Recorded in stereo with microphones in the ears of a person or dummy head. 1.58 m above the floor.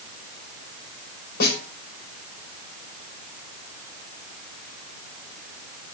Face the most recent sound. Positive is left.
turn(degrees=60)  # may be behind; listen again after turning